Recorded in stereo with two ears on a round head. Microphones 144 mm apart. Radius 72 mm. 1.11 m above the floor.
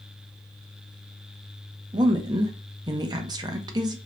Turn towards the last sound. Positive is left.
turn(degrees=-25)  # may be behind; listen again after turning